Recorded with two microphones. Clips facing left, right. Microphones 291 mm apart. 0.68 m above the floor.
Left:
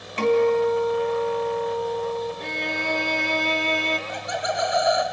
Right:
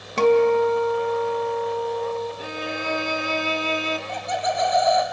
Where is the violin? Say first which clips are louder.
Even; 5° right (ahead or behind), 0.7 m.